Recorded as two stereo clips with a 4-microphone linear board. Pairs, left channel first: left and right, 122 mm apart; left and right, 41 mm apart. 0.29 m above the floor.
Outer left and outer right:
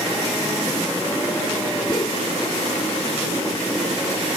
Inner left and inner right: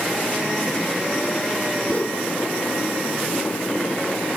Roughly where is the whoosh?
Left.